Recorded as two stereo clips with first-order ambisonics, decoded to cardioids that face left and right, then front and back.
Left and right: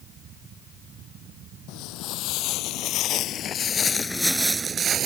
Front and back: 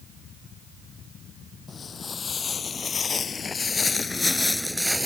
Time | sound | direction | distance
1.7 | footsteps | 70° left | ?